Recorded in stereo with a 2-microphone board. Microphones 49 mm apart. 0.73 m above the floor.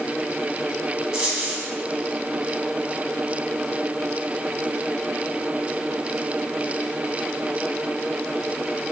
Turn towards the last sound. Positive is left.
turn(degrees=-15)  # may be behind; listen again after turning